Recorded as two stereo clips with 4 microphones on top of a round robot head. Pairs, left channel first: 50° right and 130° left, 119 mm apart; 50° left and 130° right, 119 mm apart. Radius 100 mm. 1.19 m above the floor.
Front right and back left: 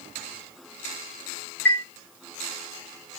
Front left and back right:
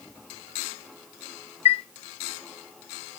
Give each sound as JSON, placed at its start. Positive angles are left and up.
{"t": 1.6, "sound": "a chime", "azimuth_deg": 25, "distance_m": 1.4}